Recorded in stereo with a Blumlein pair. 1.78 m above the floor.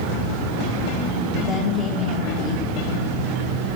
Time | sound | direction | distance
1.4 | a woman speaking | 30° left | 3 m